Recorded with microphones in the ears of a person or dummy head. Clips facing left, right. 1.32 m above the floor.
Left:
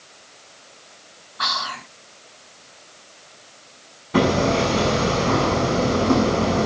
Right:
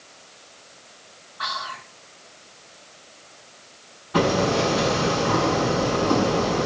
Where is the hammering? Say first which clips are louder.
Left 2 dB; 40° left (ahead or behind), 7 m.